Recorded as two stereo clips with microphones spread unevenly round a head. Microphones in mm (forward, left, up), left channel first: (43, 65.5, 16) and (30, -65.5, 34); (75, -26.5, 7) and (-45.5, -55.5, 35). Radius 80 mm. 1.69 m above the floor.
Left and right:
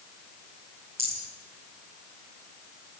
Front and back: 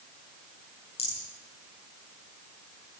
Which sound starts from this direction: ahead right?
A rattle, at 1.0 s.